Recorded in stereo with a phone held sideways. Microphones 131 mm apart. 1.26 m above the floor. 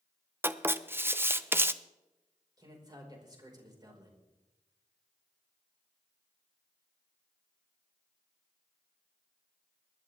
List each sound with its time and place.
0.4 s writing: 15° right (ahead or behind), 0.6 m
2.6 s a man speaking: 30° right (ahead or behind), 5 m